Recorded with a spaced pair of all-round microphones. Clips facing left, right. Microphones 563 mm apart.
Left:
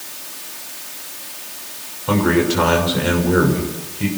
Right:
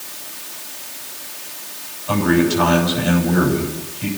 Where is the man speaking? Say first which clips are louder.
Even; 85° left, 6.5 m.